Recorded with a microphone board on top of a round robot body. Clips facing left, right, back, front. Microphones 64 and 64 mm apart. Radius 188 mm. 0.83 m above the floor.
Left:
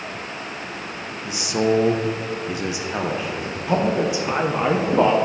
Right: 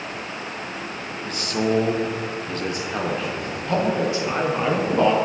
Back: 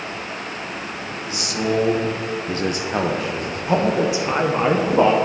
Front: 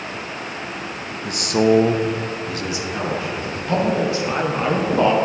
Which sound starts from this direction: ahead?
A man speaking, at 1.2 s.